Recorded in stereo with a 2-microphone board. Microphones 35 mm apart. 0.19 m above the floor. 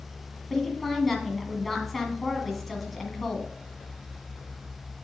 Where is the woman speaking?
5° left (ahead or behind), 1.6 m.